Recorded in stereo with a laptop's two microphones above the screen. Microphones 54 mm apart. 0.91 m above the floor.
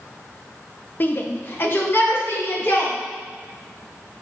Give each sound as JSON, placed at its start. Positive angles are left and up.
{"t": 1.0, "sound": "a shout", "side_deg": 35, "distance_m": 0.8}